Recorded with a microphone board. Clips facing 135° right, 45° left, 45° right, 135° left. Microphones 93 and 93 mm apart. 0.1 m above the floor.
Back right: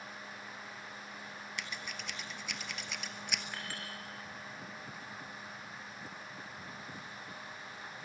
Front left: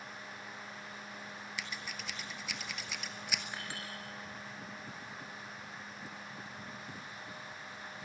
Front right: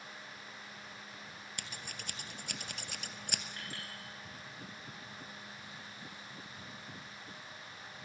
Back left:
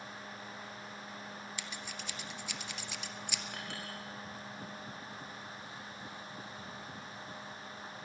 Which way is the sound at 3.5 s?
115° left.